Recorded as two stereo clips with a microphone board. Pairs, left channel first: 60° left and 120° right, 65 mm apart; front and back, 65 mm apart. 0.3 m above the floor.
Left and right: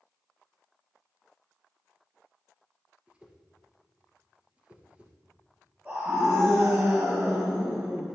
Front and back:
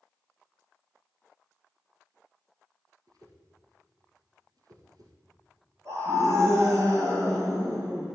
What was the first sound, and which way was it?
A whoosh, 165° left.